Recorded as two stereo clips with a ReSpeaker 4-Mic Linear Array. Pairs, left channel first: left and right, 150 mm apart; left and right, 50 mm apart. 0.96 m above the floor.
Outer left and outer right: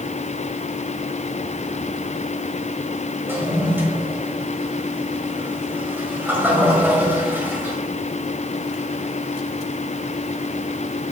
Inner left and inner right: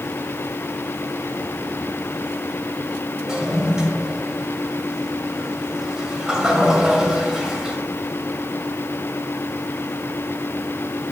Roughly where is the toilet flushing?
Centre.